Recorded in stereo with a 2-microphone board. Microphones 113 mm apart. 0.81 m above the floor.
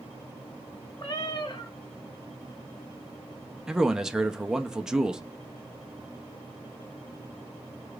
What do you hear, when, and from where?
1.0 s a cat meowing: 45° left (ahead or behind), 1.0 m
3.7 s a man speaking: 5° right (ahead or behind), 0.5 m